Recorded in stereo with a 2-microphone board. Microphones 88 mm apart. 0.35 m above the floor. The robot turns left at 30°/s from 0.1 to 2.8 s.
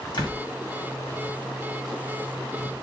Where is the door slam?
60° left (ahead or behind), 2.0 m.